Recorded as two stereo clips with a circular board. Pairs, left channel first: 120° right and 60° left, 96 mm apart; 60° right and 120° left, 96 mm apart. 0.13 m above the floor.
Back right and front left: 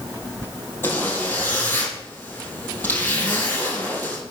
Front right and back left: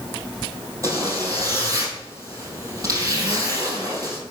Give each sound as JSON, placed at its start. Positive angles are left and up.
{"t": 0.8, "sound": "a zipper", "azimuth_deg": 175, "distance_m": 3.5}